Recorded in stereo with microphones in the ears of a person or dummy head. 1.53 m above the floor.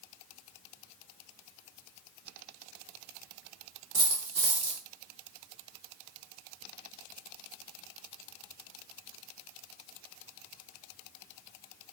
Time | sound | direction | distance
3.9 | a dropped coin | centre (ahead or behind) | 1.0 m